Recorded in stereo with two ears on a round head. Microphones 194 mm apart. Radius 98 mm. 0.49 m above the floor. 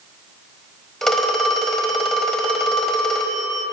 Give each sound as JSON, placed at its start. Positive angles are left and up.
{"t": 1.0, "sound": "a phone ringing", "side_deg": 0, "distance_m": 1.2}